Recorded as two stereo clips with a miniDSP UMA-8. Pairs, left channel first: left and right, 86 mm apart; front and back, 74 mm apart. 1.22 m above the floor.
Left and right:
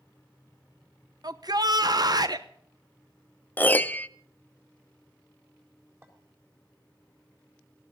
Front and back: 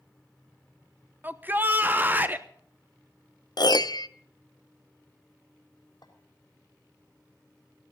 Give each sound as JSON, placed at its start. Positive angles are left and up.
{"t": 1.2, "sound": "a shout", "azimuth_deg": -120, "distance_m": 0.9}
{"t": 3.6, "sound": "a piano", "azimuth_deg": 20, "distance_m": 0.5}
{"t": 6.0, "sound": "a clink", "azimuth_deg": -30, "distance_m": 3.5}